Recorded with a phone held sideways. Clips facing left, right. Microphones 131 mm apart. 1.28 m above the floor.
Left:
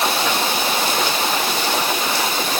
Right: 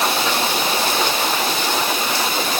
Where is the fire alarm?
I don't hear a fire alarm.